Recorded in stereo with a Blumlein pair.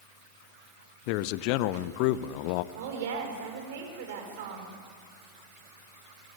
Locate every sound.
1.1 s a man speaking: 45° left, 0.7 m
2.7 s a woman speaking: 55° right, 5 m